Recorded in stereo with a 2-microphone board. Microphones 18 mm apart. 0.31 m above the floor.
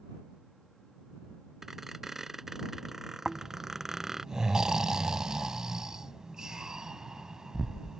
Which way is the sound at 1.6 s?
25° right (ahead or behind).